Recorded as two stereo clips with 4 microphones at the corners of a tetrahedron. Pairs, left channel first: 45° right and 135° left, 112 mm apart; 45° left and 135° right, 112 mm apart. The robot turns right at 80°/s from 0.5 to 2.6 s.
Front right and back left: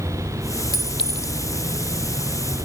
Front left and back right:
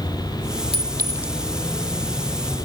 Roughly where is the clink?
Right.